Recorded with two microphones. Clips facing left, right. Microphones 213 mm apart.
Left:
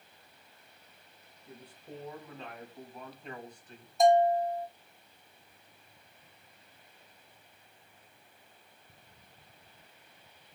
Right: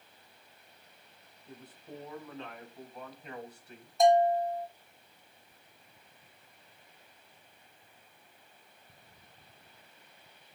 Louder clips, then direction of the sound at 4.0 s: Even; centre (ahead or behind).